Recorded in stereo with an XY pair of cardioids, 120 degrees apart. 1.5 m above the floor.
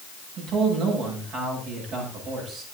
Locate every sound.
0.4 s a man speaking: 70° right, 7 m